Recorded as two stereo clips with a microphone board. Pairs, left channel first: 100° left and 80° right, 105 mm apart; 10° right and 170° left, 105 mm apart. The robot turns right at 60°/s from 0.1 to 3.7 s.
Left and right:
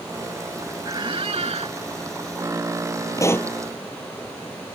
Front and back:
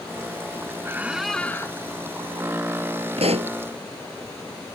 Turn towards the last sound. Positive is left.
turn(degrees=-170)